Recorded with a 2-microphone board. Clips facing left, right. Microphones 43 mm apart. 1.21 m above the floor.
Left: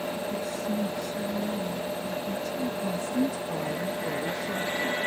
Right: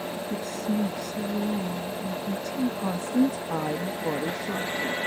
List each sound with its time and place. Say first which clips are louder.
0.3 s a woman speaking: right 1 dB; 85° right
2.8 s a woman speaking: right 4 dB; 65° right (ahead or behind)